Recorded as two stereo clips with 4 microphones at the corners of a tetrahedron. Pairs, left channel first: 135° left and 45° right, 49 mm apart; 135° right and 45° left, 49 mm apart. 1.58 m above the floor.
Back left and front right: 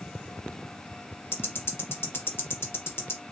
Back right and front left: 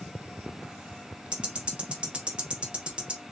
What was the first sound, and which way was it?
Ticking, 110° left.